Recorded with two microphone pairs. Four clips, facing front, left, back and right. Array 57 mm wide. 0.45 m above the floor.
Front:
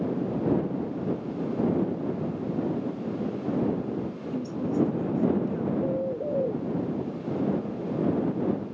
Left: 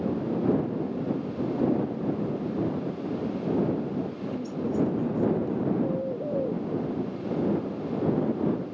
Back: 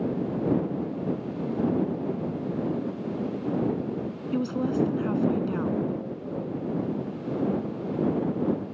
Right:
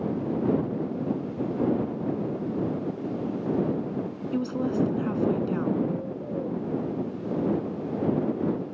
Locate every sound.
4.3 s a woman speaking: 140° right
5.8 s a bird: 30° left